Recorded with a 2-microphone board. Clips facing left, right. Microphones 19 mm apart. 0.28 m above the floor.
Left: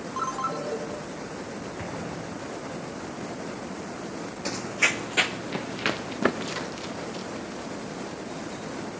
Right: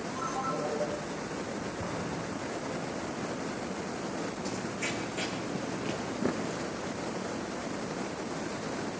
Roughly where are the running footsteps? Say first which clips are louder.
Left 14 dB; left.